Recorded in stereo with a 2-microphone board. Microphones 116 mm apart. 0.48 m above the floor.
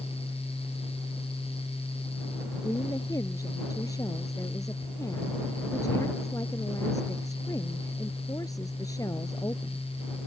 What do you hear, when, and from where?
2.6 s a woman speaking: 30° left (ahead or behind)